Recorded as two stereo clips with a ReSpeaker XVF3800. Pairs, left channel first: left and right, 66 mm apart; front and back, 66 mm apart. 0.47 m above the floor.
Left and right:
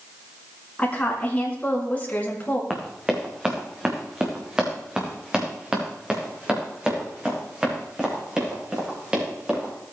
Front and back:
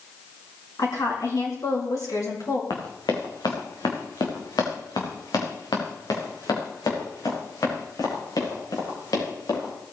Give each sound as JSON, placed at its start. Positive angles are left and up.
{"t": 0.8, "sound": "a woman speaking", "azimuth_deg": 20, "distance_m": 5.0}
{"t": 2.7, "sound": "running footsteps", "azimuth_deg": -10, "distance_m": 2.5}